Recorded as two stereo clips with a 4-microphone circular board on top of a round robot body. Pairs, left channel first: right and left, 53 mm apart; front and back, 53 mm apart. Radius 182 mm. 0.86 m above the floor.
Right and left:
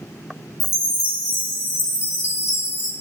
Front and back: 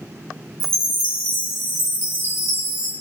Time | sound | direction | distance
0.6 | a chime | 135° right | 2.5 m